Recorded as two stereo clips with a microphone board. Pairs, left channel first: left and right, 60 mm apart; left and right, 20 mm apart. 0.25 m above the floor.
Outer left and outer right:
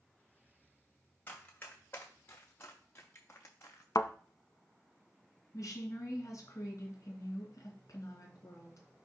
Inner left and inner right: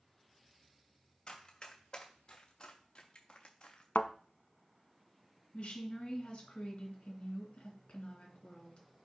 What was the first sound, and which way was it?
Running footsteps, 35° left (ahead or behind).